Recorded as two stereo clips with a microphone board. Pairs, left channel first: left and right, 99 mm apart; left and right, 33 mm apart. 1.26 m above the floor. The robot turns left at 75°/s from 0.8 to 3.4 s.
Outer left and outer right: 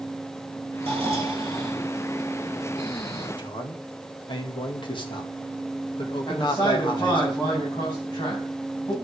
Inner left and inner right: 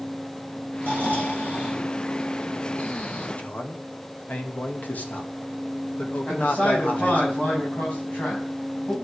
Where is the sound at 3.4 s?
55° left (ahead or behind), 2 m.